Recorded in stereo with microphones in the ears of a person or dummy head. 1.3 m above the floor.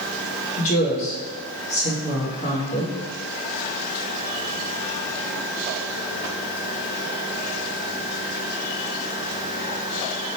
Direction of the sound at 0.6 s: 40° left (ahead or behind).